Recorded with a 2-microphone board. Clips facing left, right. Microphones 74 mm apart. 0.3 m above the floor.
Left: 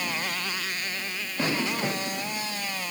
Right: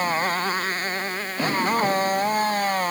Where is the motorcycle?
40° right (ahead or behind); by 2.9 s 50° right (ahead or behind).